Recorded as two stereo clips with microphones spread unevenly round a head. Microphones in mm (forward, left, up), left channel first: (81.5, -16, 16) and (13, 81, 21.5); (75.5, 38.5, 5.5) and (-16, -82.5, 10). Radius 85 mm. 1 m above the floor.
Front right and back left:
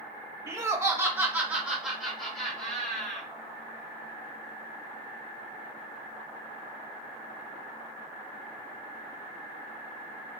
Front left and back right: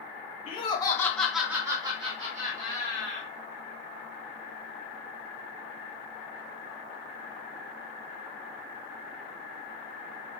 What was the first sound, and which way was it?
Laughter, 70° left.